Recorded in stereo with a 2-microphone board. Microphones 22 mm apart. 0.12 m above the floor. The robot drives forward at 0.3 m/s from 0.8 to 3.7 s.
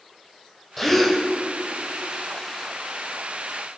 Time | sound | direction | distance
0.8 | a gasp | 15° left (ahead or behind) | 1.3 m